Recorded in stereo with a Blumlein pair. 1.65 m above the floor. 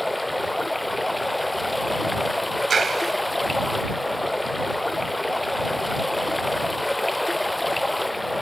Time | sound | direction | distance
0.0 | running water | 5° left | ?
2.7 | a clap | 20° right | ?